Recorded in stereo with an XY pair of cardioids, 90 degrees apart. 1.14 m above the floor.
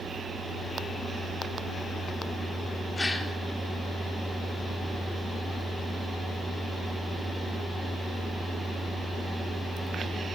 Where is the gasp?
25° left, 1.7 m.